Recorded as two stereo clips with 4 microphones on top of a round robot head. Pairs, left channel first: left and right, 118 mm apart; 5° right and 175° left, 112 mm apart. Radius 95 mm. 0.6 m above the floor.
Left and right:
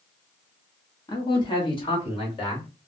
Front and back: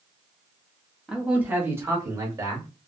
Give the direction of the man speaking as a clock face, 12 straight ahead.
9 o'clock.